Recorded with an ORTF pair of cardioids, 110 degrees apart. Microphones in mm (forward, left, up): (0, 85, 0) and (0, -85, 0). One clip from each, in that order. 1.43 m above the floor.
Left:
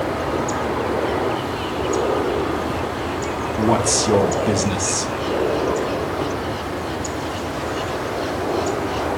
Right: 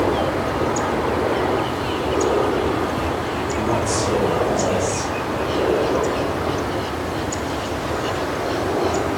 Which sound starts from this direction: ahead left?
A man speaking, at 3.6 s.